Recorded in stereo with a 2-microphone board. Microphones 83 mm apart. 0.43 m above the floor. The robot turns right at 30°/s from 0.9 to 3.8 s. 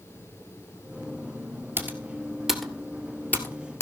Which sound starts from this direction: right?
Typing on a keyboard, at 1.8 s.